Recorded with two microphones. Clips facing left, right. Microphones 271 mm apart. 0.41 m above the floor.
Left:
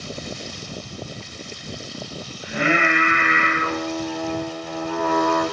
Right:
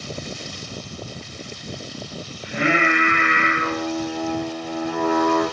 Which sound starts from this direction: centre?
Singing, at 2.4 s.